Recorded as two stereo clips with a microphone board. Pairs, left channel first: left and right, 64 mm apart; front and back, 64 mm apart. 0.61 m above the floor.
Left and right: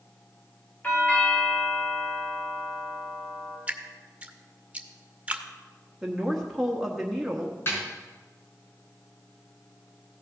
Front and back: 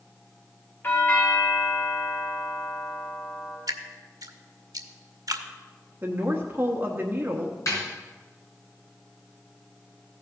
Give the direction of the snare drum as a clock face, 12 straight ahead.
11 o'clock.